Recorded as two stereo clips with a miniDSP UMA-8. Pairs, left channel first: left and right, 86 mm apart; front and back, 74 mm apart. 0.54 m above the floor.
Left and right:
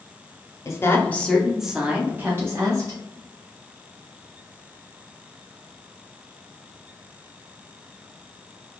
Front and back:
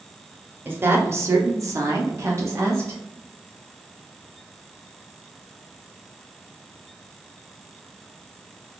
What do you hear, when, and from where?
0.7 s a woman speaking: 125° left, 0.8 m; by 3.0 s 130° right, 1.2 m